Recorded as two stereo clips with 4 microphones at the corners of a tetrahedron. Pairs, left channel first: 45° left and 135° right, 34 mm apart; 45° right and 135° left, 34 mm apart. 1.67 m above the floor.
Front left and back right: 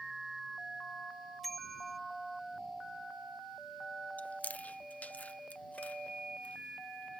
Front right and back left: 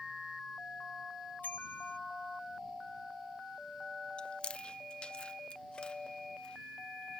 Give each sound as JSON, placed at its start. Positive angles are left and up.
{"t": 1.4, "sound": "a bicycle bell", "azimuth_deg": -40}
{"t": 4.2, "sound": "chewing", "azimuth_deg": 10}